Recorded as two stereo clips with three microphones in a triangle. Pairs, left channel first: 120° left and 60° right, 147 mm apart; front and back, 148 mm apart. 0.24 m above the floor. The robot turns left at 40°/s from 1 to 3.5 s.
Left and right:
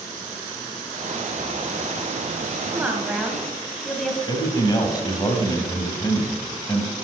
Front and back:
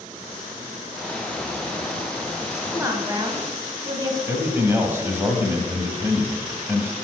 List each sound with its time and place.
2.7 s a woman speaking: 125° right, 1.2 m; by 4.2 s 155° right, 1.2 m
4.3 s a man speaking: 125° left, 1.5 m